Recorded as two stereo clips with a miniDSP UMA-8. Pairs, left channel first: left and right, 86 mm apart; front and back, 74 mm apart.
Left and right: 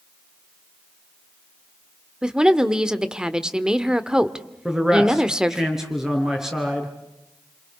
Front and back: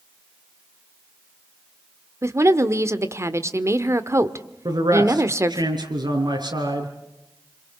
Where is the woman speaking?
165° right, 1.3 m.